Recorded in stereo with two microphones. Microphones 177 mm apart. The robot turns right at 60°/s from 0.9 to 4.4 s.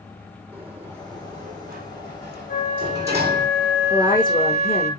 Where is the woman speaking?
5° left, 6 m; by 5.0 s 35° left, 6 m.